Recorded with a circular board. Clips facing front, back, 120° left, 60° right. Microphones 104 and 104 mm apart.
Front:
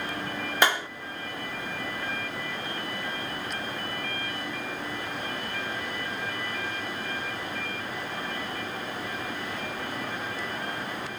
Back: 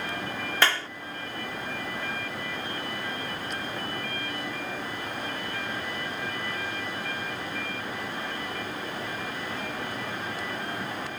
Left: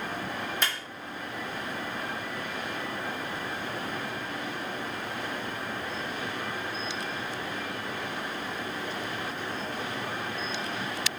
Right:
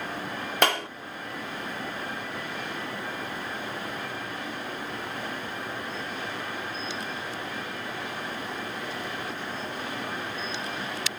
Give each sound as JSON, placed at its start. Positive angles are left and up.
{"t": 0.6, "sound": "a clap", "azimuth_deg": -70}